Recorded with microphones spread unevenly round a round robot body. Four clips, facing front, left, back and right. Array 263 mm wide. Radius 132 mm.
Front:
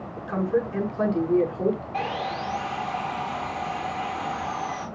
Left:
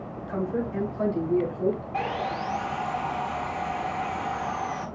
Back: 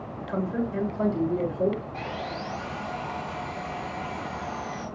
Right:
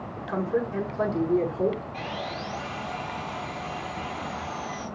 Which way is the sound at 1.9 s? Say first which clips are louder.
Left 5 dB, front 5 dB; 45° left.